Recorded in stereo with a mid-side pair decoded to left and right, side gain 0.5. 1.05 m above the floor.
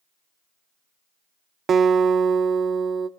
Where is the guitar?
45° right, 0.6 m.